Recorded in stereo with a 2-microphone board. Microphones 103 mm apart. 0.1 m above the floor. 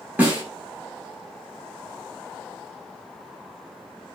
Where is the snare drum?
15° right (ahead or behind), 1.2 m.